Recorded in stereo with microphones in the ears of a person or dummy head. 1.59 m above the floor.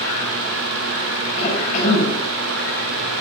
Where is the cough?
45° left (ahead or behind), 8.5 m.